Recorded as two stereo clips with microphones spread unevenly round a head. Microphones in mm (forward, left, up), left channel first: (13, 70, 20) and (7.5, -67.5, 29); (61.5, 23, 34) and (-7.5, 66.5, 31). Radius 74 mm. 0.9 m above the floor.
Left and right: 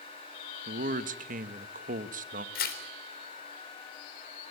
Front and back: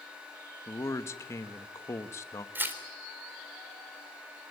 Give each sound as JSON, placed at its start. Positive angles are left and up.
{"t": 0.7, "sound": "a man speaking", "azimuth_deg": -90, "distance_m": 1.4}
{"t": 2.5, "sound": "tearing paper", "azimuth_deg": 85, "distance_m": 3.5}